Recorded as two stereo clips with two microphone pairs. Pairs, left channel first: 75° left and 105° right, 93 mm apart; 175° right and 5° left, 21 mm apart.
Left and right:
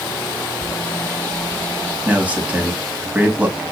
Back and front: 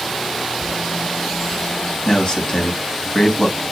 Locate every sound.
0.6 s a bird: 145° left, 4.5 m
2.0 s a man speaking: 170° right, 2 m